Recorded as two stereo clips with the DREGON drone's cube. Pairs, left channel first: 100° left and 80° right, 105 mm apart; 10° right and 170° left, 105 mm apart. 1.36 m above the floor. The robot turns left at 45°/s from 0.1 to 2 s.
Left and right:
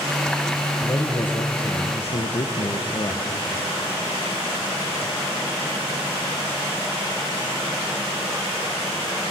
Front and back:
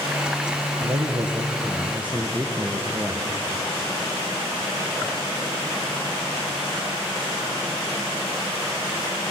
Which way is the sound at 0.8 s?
150° left.